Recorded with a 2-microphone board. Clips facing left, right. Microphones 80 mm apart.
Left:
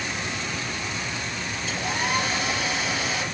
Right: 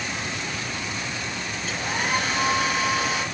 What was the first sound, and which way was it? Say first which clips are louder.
A hair dryer: right 1 dB; 60° right (ahead or behind).